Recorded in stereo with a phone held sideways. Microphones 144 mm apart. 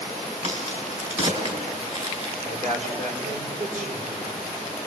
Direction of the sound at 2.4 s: 60° right (ahead or behind).